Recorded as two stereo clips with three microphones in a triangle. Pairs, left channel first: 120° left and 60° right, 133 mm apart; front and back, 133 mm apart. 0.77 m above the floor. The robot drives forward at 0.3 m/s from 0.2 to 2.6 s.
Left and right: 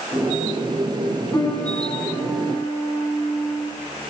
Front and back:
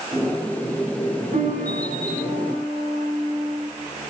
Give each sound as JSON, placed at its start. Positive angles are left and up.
{"t": 1.3, "sound": "a piano", "azimuth_deg": -175, "distance_m": 7.0}